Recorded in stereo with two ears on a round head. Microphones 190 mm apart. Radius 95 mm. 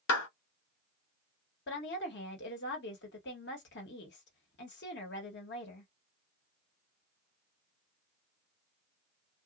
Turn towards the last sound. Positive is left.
turn(degrees=55)  # may be behind; listen again after turning